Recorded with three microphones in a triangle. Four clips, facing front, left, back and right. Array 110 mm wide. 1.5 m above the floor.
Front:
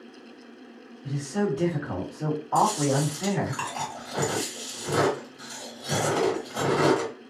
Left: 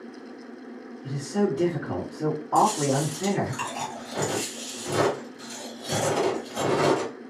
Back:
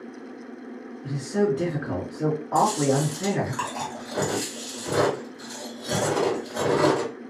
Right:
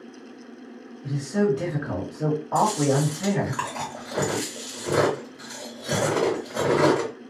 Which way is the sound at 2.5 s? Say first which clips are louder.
Even, back 1 dB; 95° right.